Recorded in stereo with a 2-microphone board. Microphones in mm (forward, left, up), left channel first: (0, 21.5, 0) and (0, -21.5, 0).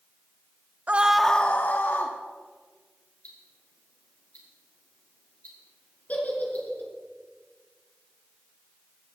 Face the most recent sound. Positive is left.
turn(degrees=40)  # may be behind; listen again after turning